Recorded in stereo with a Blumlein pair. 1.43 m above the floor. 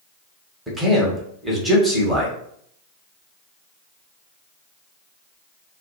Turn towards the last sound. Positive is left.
turn(degrees=-10)